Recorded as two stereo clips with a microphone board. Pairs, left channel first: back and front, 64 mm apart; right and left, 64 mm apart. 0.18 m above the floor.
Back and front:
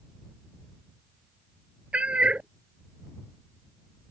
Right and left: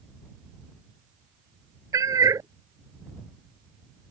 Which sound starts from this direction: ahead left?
A cat meowing, at 1.9 s.